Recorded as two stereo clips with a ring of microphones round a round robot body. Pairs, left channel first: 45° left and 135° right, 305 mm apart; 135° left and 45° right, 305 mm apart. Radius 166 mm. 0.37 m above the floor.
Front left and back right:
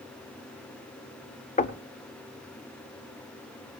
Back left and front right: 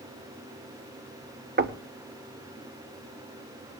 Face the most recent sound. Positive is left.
turn(degrees=-10)